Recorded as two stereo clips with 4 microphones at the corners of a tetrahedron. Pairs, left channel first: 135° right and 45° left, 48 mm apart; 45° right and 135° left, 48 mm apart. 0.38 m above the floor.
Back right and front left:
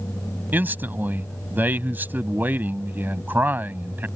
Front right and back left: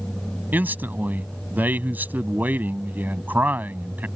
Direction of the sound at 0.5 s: 90° left.